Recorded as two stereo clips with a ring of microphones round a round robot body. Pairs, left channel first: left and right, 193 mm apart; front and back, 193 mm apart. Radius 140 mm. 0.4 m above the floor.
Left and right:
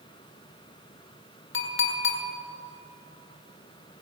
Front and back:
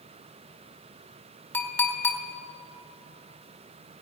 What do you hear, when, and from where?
1.5 s a clink: 80° left, 1.8 m